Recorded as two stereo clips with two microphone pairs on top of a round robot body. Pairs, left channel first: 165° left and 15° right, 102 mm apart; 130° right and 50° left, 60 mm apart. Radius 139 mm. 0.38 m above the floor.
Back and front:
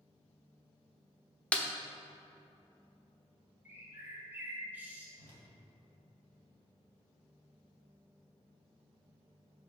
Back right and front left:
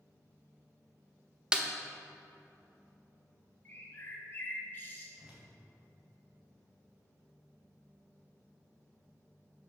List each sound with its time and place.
1.5 s a snare drum: 80° left, 1.0 m
3.6 s a bird: 75° right, 1.8 m
5.2 s a whoosh: 15° right, 2 m